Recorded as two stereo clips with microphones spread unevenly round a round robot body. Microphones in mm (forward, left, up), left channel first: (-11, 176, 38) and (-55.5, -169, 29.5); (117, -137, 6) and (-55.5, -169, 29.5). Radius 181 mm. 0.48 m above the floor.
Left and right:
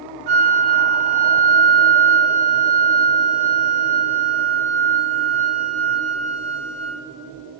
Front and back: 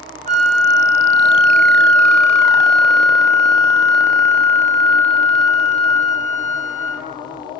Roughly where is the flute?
Behind right.